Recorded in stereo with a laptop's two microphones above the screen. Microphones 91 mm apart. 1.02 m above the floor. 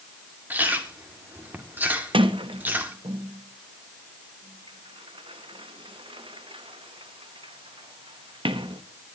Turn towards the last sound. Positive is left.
turn(degrees=-80)